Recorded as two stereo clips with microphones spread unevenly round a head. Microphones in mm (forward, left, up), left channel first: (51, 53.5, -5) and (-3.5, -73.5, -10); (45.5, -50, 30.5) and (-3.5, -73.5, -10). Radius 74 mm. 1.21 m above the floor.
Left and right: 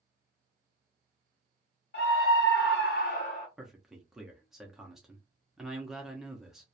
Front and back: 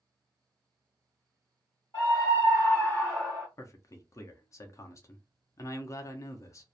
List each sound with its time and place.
1.9 s a scream: 65° left, 1.0 m; by 3.5 s 120° left, 0.9 m
3.6 s a man speaking: 30° right, 0.6 m